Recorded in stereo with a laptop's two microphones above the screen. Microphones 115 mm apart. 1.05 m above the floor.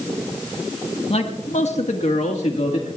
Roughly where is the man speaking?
Left.